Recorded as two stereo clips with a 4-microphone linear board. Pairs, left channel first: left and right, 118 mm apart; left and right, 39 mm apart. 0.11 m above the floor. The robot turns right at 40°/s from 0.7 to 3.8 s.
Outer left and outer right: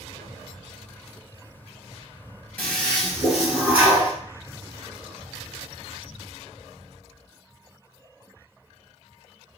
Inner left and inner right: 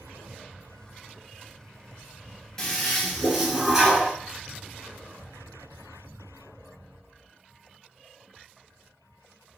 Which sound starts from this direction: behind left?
A toilet flushing, at 2.6 s.